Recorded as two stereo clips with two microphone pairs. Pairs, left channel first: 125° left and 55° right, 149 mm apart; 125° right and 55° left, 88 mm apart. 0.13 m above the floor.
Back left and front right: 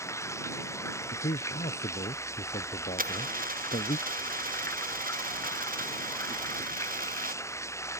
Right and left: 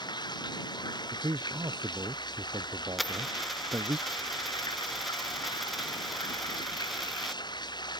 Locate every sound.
0.0 s running water: 160° right
1.1 s a man speaking: 95° left
3.0 s a dropped coin: 35° right